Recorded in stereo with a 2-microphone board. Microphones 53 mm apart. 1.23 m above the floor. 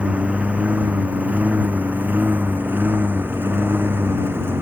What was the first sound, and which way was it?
A lawn mower, 25° right (ahead or behind).